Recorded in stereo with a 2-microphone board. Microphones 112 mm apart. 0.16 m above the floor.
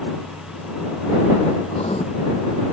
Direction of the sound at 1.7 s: 75° left (ahead or behind).